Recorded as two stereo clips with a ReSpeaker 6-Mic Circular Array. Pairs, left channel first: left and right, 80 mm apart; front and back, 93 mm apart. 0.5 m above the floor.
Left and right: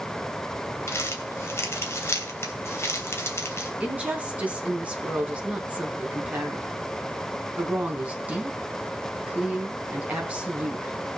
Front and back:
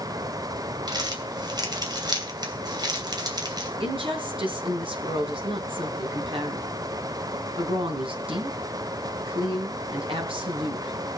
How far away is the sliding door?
No sliding door in this recording.